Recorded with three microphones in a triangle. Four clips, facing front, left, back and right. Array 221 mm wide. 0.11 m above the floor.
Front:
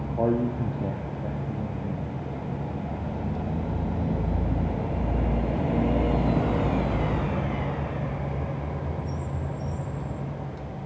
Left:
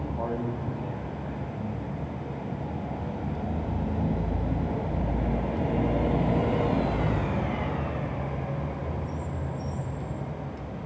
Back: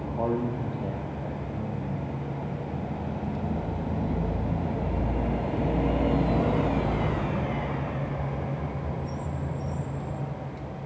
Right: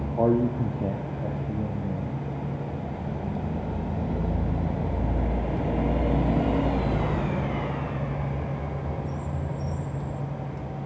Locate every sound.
0.2 s a man speaking: 65° right, 3 m; by 2.2 s 85° right, 3.5 m